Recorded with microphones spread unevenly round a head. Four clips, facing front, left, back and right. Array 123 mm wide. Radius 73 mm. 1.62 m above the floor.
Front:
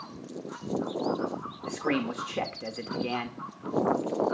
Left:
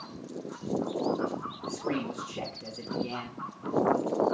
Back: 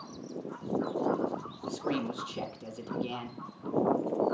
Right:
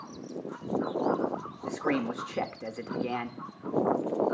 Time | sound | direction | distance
1.6 | a man speaking | 45° right | 2 m